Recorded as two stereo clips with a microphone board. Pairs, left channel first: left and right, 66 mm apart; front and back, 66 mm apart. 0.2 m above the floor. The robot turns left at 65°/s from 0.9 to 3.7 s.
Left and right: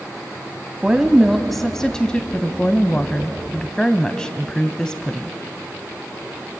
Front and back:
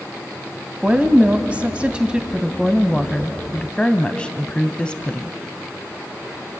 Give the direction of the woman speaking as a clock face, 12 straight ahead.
5 o'clock.